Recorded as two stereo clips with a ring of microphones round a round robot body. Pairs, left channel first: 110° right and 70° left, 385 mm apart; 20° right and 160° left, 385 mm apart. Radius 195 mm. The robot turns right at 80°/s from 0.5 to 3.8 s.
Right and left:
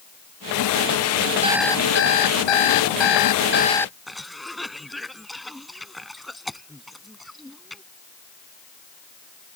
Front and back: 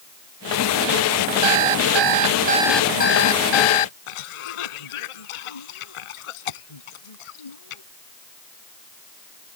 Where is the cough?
25° right.